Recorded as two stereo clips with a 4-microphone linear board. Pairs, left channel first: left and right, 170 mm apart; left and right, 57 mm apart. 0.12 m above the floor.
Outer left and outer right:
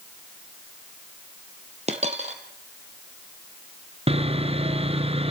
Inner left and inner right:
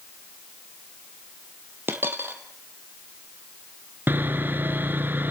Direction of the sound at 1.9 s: 40° right (ahead or behind).